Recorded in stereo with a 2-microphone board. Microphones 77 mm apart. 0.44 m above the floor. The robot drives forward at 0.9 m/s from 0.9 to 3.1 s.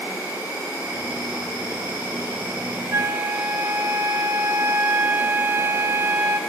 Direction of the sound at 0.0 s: 60° right (ahead or behind).